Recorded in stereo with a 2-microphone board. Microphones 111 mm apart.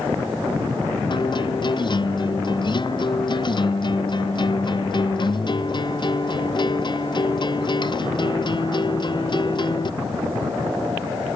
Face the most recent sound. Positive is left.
turn(degrees=45)  # may be behind; listen again after turning